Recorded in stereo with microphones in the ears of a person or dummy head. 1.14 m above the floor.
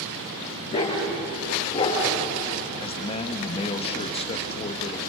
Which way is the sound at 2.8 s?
25° left (ahead or behind).